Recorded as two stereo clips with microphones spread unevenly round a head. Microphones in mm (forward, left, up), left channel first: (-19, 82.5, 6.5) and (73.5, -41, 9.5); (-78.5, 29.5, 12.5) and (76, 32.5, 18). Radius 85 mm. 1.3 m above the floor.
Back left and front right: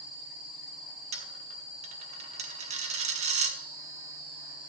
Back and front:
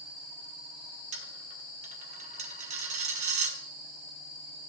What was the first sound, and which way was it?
A dropped coin, 30° right.